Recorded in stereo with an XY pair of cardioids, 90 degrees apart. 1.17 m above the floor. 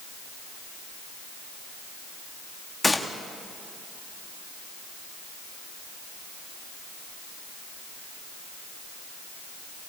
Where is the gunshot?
10° left, 2 m.